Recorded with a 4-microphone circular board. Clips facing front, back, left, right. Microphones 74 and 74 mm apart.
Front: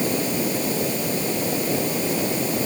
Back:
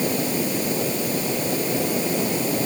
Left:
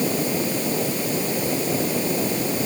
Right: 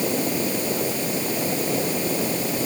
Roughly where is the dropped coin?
No dropped coin in this recording.